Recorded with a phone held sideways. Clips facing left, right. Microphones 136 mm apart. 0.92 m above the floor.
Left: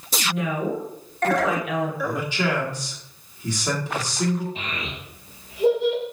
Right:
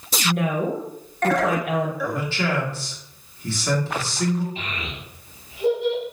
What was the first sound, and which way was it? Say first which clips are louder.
A woman speaking: right 3 dB; 55° right (ahead or behind).